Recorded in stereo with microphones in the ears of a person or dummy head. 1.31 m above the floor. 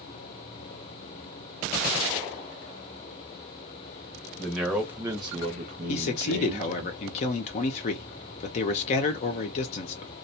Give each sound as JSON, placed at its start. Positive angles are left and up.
{"t": 4.4, "sound": "a man speaking", "side_deg": 10, "distance_m": 1.0}
{"t": 5.9, "sound": "a man speaking", "side_deg": 35, "distance_m": 0.5}